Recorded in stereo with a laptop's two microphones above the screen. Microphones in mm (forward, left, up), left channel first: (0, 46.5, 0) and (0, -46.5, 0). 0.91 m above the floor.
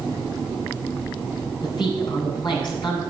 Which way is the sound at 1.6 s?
55° left (ahead or behind).